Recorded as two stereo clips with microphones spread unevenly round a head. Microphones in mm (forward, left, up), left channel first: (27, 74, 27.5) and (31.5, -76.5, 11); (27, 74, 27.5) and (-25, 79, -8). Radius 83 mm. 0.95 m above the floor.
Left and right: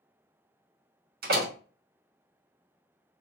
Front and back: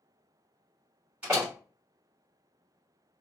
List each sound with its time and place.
1.2 s a door slam: 120° right, 1.4 m